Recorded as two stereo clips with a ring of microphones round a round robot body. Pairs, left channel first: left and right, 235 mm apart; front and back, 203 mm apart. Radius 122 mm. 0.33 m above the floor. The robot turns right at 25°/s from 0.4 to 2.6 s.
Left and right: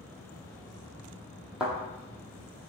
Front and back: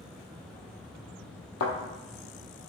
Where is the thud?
5° right, 1.2 m; by 1.7 s straight ahead, 1.2 m.